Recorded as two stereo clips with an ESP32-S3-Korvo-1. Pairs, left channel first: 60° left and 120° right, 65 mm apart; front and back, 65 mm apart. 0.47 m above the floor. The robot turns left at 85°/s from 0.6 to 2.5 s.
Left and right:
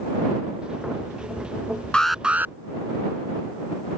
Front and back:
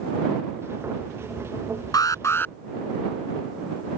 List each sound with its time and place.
1.9 s an alarm: 15° right; by 2.5 s 65° right